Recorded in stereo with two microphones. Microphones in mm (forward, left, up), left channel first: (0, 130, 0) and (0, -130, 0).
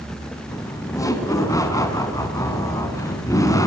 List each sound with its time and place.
0.5 s laughter: 15° left (ahead or behind), 2.5 m